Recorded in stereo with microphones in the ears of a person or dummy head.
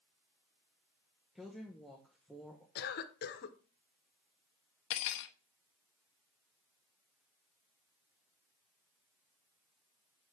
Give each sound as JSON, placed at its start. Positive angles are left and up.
{"t": 1.4, "sound": "a woman speaking", "side_deg": -5, "distance_m": 0.9}
{"t": 2.8, "sound": "a cough", "side_deg": 55, "distance_m": 1.1}
{"t": 4.9, "sound": "cutlery clinking", "side_deg": 70, "distance_m": 0.7}